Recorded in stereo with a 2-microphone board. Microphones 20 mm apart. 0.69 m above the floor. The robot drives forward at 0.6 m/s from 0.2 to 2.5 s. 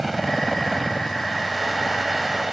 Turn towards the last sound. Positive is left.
turn(degrees=-5)  # may be behind; listen again after turning